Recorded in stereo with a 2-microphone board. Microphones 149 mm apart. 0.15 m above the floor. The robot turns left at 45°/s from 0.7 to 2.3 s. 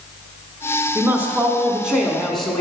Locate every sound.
0.9 s a woman speaking: 20° right (ahead or behind), 1.0 m; by 2.6 s centre (ahead or behind), 1.0 m